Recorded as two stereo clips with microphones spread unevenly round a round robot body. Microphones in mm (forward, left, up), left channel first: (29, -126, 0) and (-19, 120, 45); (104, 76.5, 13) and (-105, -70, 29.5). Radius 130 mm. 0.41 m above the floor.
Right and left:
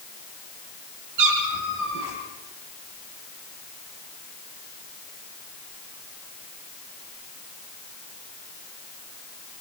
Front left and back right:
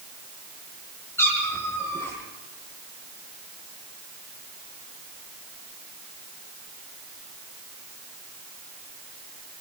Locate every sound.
1.2 s a cat meowing: 115° left, 7 m